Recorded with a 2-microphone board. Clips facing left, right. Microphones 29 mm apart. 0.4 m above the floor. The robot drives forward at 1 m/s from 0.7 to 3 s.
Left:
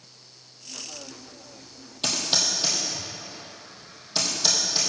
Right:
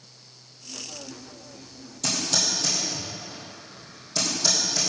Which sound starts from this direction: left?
Typing on a keyboard, at 2.0 s.